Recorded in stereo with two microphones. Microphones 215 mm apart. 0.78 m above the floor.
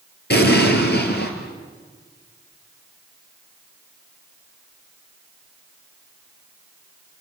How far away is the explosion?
About 3 m.